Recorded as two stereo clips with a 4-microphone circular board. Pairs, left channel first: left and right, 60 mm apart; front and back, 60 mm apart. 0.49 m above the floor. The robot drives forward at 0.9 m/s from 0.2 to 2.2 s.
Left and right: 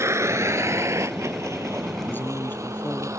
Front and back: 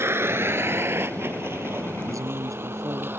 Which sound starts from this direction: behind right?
A vehicle, at 0.0 s.